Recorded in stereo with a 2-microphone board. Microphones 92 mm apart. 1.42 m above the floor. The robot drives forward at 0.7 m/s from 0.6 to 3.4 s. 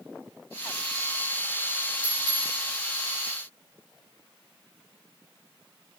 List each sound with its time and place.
2.0 s a clink: 80° left, 5 m; by 2.6 s 85° left, 5 m